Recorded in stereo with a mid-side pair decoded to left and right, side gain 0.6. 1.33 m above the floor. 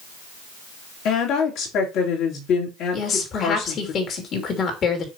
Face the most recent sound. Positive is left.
turn(degrees=45)